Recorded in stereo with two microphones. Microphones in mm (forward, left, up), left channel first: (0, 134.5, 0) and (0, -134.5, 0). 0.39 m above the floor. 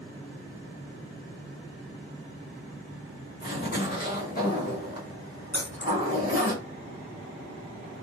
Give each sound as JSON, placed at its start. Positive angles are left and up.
{"t": 3.4, "sound": "a zipper", "side_deg": 35, "distance_m": 1.1}
{"t": 5.5, "sound": "keys jangling", "side_deg": 5, "distance_m": 1.2}